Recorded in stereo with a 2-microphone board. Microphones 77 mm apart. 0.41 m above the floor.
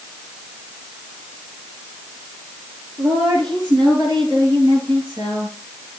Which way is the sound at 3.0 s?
80° right.